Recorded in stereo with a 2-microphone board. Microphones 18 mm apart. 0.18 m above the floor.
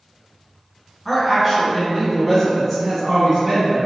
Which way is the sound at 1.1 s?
10° left (ahead or behind).